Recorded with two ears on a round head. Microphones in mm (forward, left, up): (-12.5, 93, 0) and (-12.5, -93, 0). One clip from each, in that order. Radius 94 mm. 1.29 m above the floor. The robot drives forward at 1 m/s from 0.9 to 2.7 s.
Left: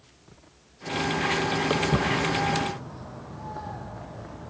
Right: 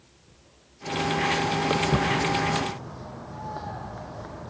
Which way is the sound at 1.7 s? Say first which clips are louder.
Right 1 dB; 5° left (ahead or behind).